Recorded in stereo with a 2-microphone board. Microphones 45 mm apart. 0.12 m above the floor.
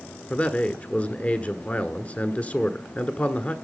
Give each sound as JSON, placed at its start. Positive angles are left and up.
{"t": 0.3, "sound": "a man speaking", "side_deg": 35, "distance_m": 1.3}